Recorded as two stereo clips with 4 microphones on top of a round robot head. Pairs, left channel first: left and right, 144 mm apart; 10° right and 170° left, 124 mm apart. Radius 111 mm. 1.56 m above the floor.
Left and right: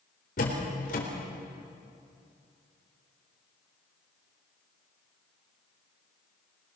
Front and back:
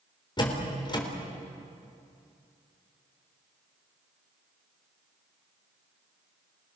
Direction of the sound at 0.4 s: 45° left.